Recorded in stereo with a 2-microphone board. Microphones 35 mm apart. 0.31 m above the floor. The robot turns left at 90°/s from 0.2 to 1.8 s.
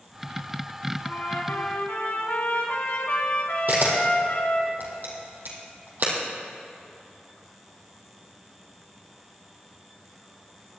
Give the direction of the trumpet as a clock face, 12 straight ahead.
8 o'clock.